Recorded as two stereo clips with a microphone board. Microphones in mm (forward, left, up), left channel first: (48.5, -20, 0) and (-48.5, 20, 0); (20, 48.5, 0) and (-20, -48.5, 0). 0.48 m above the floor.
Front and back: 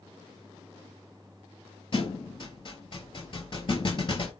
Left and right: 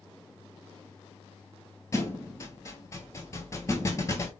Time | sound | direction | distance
1.9 | a thud | 10° left | 0.8 m